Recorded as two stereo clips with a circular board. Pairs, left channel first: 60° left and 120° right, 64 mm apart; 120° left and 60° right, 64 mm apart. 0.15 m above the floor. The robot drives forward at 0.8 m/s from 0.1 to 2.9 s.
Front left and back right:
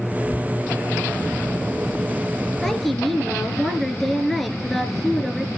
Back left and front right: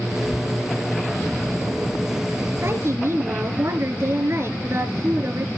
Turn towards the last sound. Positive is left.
turn(degrees=-25)